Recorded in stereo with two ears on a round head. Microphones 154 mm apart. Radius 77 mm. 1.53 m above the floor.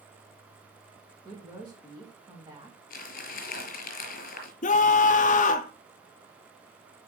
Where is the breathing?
No breathing in this recording.